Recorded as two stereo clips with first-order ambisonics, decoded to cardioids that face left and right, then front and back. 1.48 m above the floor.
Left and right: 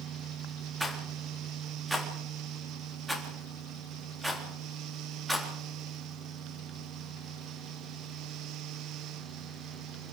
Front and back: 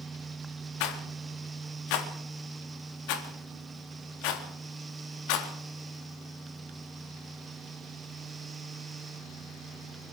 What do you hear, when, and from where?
0.8 s a rattle: 5° right, 3.5 m